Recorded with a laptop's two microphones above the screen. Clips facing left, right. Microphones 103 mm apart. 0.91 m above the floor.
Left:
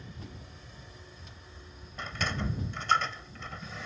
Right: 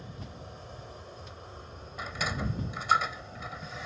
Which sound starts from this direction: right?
An aircraft, at 0.0 s.